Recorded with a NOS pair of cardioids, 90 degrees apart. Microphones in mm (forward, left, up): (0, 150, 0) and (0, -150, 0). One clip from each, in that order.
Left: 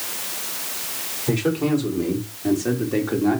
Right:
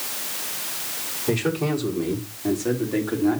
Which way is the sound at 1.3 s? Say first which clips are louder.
Left 2 dB; 10° right.